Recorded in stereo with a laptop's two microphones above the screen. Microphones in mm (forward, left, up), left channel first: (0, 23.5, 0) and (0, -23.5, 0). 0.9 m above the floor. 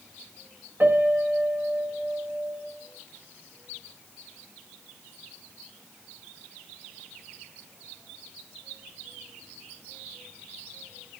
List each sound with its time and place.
0.8 s a piano: 50° right (ahead or behind), 1.1 m